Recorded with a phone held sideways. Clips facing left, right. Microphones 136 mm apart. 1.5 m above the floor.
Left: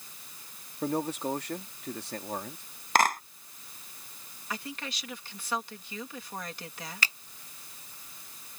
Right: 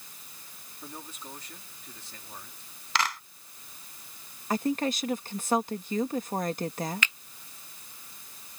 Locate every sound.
0.8 s a man speaking: 85° left
3.0 s a clap: 50° left (ahead or behind)
4.5 s a woman speaking: 50° right (ahead or behind)
7.0 s a finger snap: 40° left (ahead or behind)